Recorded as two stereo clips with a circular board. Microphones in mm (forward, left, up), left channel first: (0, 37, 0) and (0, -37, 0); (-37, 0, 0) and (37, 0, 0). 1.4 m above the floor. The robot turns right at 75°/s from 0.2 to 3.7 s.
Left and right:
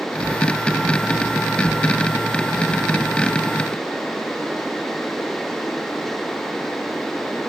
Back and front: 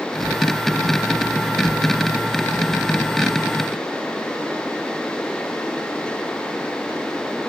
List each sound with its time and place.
Only background noise.